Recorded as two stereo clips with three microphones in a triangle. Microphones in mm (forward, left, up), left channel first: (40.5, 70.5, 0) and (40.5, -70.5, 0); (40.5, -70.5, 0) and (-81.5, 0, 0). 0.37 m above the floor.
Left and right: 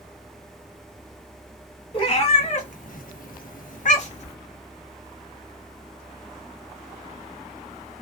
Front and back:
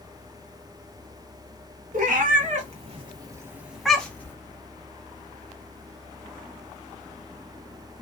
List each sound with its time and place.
1.9 s a cat meowing: 135° left, 1.0 m; by 4.3 s 45° left, 0.9 m